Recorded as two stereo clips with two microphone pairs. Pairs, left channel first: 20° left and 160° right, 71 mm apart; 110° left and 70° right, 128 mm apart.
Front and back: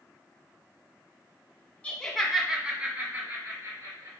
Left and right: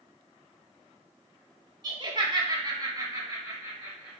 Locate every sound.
1.8 s laughter: 40° right, 1.6 m; by 4.2 s 140° right, 2.5 m